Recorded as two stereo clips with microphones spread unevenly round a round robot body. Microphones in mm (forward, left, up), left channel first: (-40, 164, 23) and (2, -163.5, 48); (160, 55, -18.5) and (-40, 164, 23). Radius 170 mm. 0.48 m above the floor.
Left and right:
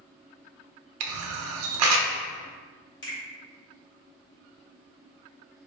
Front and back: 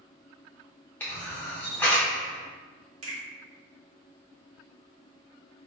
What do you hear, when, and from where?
1.0 s a camera shutter: 95° right, 0.6 m
3.0 s a finger snap: 145° left, 1.9 m